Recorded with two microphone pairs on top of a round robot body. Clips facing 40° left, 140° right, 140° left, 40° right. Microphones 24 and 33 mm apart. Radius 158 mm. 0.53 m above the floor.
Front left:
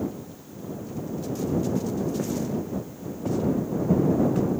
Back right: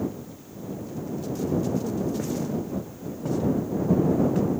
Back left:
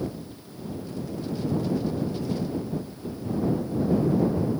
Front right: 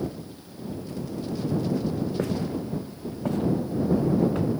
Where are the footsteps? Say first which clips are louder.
Even, front right 1 dB; 50° right; by 4.5 s 55° right.